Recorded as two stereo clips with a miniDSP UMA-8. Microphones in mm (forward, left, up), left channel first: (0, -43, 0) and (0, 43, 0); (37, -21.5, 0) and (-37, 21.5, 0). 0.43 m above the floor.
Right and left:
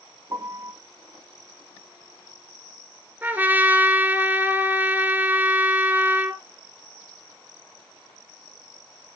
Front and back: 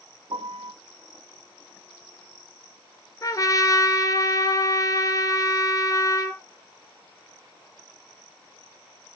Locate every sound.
0.3 s a piano: 140° left, 0.8 m
3.2 s a trumpet: 20° left, 1.6 m